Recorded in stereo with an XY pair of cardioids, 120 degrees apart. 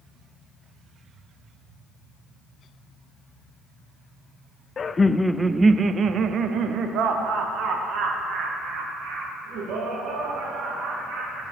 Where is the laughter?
35° left, 0.5 m; by 11.4 s 75° right, 4 m.